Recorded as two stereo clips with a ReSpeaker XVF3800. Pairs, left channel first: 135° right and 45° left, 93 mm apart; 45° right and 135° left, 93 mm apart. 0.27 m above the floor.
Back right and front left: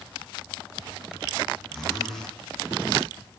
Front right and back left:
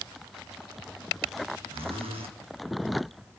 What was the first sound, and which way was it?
A zipper, 140° left.